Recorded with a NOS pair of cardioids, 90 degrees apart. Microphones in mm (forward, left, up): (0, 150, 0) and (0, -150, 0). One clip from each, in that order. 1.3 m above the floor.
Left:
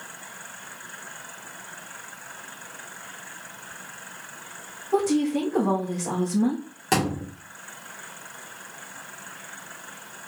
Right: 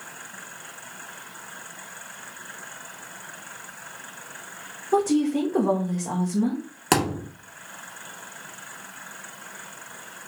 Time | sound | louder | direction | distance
4.9 | a woman speaking | right 1 dB | 30° right | 1.7 m
6.9 | a thud | right 2 dB | 55° right | 1.8 m